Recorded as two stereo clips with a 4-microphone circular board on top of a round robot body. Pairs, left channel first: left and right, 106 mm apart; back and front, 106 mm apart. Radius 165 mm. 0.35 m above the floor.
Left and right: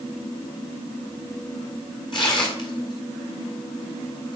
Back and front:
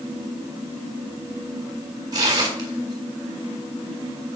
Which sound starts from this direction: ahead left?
Tearing paper, at 2.1 s.